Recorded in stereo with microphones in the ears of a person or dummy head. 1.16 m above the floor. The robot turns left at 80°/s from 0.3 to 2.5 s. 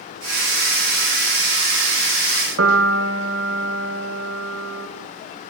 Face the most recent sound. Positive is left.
turn(degrees=-65)  # may be behind; listen again after turning